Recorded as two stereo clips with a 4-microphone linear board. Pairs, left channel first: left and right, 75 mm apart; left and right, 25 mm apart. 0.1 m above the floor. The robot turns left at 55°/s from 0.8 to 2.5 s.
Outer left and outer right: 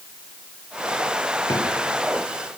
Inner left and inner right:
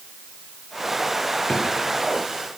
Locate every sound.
1.5 s a drawer: 60° left (ahead or behind), 7.5 m; by 1.7 s 70° left (ahead or behind), 7.5 m